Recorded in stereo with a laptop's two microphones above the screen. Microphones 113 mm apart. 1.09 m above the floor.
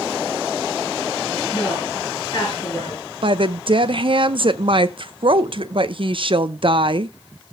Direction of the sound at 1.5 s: 40° left (ahead or behind).